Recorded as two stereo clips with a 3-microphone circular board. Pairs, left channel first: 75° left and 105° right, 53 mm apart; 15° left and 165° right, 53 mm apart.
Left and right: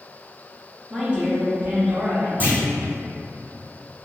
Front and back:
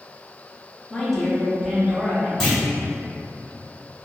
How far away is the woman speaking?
About 0.8 m.